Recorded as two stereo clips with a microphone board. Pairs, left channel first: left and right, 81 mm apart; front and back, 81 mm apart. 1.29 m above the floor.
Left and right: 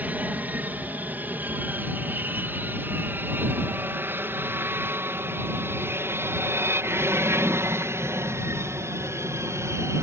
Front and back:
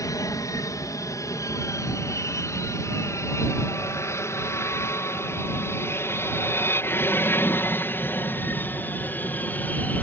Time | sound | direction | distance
0.0 | an aircraft | 25° right | ?